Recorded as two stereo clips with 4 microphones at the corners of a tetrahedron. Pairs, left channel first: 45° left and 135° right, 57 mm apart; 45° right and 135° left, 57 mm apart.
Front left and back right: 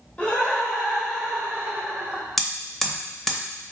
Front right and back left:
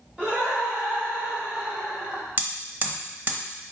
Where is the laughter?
85° left, 1.3 m; by 2.2 s 165° right, 1.7 m.